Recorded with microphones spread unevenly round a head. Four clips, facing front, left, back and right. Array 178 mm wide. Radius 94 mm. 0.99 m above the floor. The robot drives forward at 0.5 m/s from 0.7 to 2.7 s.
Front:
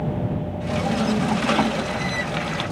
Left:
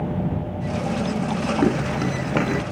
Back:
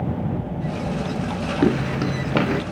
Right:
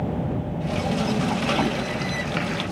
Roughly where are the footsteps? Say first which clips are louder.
Left 5 dB, back 4 dB; behind left.